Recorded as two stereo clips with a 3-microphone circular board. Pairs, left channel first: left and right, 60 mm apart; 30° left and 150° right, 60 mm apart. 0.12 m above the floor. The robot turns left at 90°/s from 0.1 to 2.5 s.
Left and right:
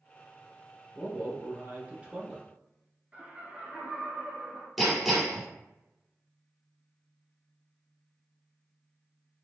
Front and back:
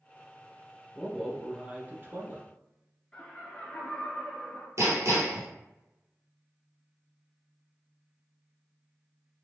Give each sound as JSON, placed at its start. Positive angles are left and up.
{"t": 0.9, "sound": "a man speaking", "azimuth_deg": -35, "distance_m": 1.3}
{"t": 3.1, "sound": "laughter", "azimuth_deg": -35, "distance_m": 1.3}
{"t": 4.8, "sound": "hammering", "azimuth_deg": 180, "distance_m": 1.6}